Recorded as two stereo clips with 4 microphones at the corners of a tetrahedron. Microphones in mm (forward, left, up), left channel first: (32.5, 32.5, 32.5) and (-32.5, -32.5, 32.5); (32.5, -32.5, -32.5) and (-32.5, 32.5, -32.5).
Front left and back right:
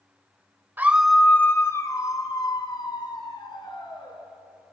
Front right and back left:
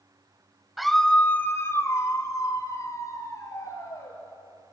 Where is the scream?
140° right, 0.9 m; by 4.2 s 10° left, 4 m.